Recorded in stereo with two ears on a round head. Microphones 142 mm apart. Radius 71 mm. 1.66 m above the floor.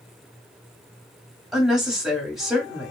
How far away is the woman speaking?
About 1.5 m.